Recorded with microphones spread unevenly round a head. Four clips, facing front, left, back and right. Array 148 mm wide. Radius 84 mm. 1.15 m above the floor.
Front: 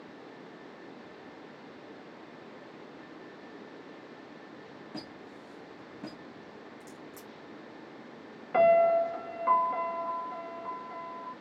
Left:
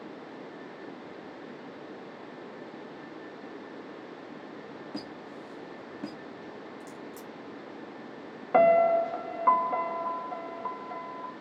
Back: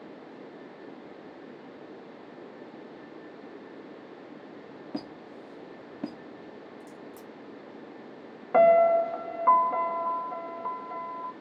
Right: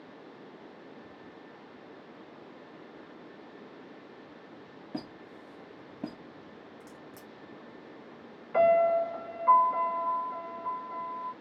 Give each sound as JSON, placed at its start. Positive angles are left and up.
{"t": 4.9, "sound": "a squeak", "azimuth_deg": -165, "distance_m": 0.6}
{"t": 6.8, "sound": "a crack", "azimuth_deg": -175, "distance_m": 0.6}
{"t": 8.5, "sound": "a piano", "azimuth_deg": 120, "distance_m": 0.7}